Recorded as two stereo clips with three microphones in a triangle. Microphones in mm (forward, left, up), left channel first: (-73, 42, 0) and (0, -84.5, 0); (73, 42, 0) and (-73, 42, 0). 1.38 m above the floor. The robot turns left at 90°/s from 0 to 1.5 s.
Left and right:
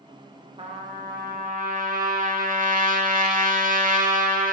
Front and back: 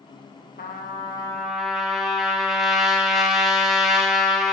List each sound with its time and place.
0.6 s a trumpet: 10° right, 0.9 m; by 4.5 s 90° right, 0.9 m